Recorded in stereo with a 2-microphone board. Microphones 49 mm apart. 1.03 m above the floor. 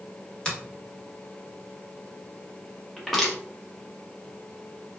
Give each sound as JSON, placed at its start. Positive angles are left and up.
{"t": 0.5, "sound": "a finger snap", "side_deg": 20, "distance_m": 1.2}
{"t": 3.0, "sound": "crushing", "side_deg": 5, "distance_m": 1.1}